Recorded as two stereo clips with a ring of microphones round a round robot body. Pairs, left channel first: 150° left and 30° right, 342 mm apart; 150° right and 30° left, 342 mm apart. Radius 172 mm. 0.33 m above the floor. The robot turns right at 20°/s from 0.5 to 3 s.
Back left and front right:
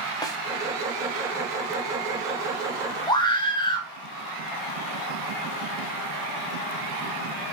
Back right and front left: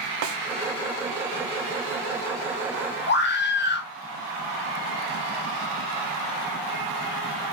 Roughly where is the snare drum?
Left.